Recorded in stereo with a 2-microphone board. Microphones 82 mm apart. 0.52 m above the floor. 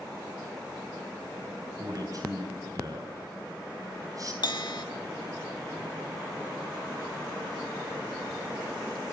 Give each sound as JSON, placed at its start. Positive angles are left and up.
{"t": 1.8, "sound": "a man speaking", "side_deg": -45, "distance_m": 3.5}
{"t": 4.4, "sound": "a bell", "side_deg": 65, "distance_m": 0.7}